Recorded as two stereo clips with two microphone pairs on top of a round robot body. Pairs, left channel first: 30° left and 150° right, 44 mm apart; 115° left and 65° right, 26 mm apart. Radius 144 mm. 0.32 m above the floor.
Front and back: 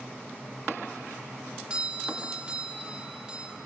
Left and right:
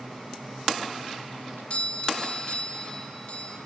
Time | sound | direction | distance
1.7 | a doorbell | 140° left | 2.5 m